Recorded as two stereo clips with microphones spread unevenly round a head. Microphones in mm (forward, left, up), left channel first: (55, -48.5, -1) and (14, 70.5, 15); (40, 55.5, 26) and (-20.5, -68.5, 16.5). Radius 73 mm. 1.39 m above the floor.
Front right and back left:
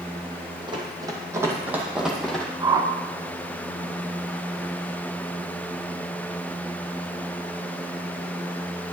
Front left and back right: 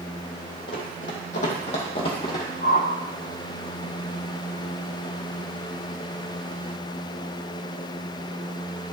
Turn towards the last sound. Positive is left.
turn(degrees=65)